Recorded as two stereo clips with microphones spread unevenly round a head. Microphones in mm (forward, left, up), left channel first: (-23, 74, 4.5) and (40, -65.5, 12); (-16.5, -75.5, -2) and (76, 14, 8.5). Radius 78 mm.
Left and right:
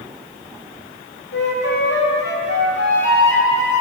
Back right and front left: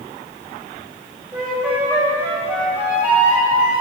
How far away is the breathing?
No breathing in this recording.